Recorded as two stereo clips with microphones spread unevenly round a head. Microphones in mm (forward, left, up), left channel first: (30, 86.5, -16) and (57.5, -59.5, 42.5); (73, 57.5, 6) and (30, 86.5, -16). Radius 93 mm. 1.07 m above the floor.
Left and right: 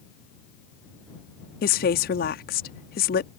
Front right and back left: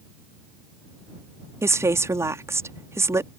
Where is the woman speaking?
125° left.